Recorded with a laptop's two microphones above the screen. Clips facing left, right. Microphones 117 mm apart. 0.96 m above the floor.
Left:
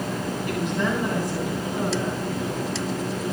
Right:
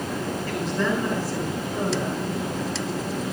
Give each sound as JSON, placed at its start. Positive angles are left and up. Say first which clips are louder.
{"t": 0.5, "sound": "a woman speaking", "louder": "even", "side_deg": 20, "distance_m": 9.5}